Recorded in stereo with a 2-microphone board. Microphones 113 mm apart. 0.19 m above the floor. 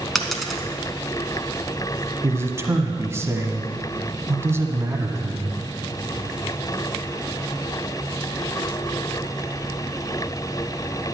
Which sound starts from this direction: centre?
A dropped coin, at 0.1 s.